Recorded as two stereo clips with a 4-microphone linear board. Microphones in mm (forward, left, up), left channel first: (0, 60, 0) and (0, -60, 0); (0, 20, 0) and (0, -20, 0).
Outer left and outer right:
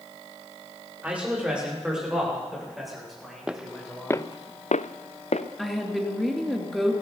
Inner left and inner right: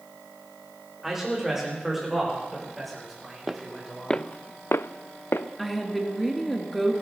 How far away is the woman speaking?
About 3 m.